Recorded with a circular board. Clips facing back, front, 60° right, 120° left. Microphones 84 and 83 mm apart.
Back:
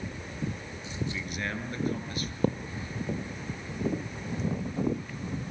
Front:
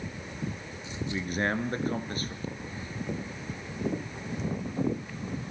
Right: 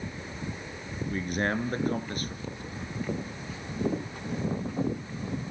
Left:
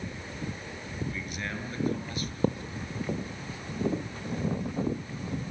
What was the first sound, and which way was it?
A man speaking, 40° right.